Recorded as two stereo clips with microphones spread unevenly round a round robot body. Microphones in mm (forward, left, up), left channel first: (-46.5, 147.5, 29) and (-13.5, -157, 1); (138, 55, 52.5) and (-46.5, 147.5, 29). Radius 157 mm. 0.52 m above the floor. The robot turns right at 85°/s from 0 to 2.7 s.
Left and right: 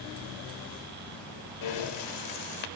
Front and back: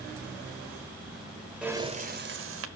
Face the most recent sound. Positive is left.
turn(degrees=160)